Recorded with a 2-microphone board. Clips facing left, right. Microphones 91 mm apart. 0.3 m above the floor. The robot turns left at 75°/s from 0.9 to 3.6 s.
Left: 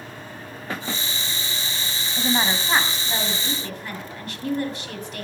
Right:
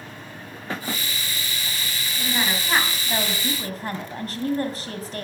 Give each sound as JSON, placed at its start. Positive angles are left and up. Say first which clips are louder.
{"t": 2.2, "sound": "a woman speaking", "louder": "left 3 dB", "azimuth_deg": 60, "distance_m": 2.0}